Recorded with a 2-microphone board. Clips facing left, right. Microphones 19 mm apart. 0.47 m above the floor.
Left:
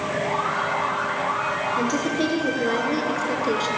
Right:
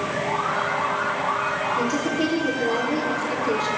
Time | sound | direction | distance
1.8 | a woman speaking | 30° left (ahead or behind) | 7.5 m